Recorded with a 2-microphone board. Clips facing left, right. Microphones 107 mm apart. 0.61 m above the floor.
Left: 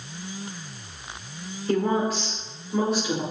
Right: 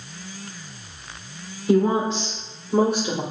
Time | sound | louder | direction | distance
1.7 | a woman speaking | right 4 dB | 10° right (ahead or behind) | 2 m